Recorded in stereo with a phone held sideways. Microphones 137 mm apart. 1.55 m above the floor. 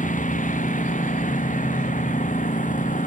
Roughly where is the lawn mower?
Left.